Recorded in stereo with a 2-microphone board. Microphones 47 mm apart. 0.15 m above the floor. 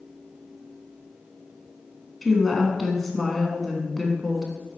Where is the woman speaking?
5° left (ahead or behind), 1.1 m.